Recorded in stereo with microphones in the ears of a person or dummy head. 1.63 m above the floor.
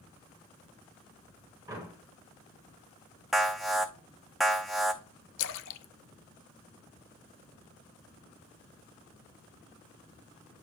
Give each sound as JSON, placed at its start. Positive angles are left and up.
{"t": 1.7, "sound": "a door slam", "side_deg": -20, "distance_m": 4.5}
{"t": 3.3, "sound": "an alarm", "side_deg": 0, "distance_m": 0.6}
{"t": 5.4, "sound": "a splash", "side_deg": 70, "distance_m": 0.7}